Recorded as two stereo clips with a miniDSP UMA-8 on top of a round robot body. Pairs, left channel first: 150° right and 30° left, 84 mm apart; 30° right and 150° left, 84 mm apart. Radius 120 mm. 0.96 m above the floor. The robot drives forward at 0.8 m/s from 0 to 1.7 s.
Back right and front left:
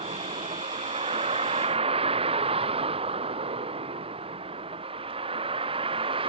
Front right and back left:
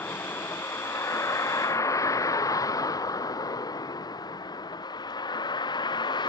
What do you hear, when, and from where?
0.0 s a vehicle: 35° left; by 6.3 s 10° left